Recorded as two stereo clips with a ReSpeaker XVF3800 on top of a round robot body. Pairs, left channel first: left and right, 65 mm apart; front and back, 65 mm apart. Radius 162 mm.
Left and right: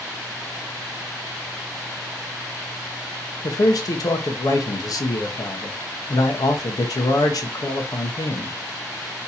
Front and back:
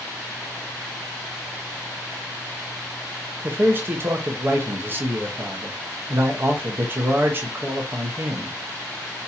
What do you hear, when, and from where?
3.4 s a man speaking: 120° left, 0.6 m